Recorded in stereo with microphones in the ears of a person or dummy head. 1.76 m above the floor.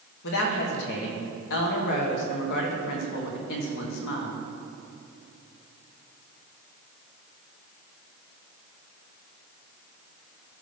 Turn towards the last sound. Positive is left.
turn(degrees=60)  # may be behind; listen again after turning